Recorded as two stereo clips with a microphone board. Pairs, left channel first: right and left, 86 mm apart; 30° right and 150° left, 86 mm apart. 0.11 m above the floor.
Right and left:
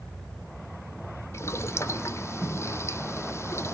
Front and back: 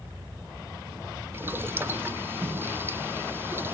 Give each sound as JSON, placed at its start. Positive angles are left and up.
{"t": 1.3, "sound": "boiling", "azimuth_deg": -145, "distance_m": 0.7}